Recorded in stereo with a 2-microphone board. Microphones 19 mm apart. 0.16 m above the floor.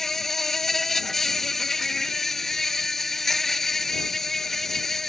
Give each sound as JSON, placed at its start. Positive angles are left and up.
{"t": 0.0, "sound": "an insect", "side_deg": 20}